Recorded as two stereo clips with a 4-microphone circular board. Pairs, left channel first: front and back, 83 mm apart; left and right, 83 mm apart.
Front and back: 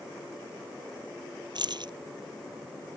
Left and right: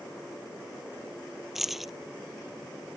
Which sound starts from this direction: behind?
Keys jangling, at 1.6 s.